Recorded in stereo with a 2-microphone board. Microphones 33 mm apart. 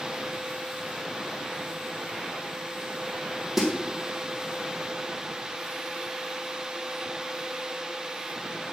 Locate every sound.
3.6 s a snare drum: 5° right (ahead or behind), 2 m